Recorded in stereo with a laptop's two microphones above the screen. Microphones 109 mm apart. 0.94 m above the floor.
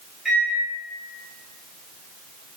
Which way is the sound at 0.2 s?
5° right (ahead or behind).